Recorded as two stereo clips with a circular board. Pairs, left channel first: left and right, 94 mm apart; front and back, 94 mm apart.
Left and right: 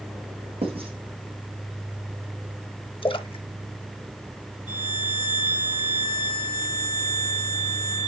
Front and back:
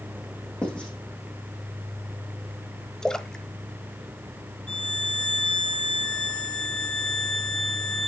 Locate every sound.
0.6 s writing: 80° right, 4.5 m
3.0 s a splash: 85° left, 0.6 m
4.7 s a violin: 80° left, 1.3 m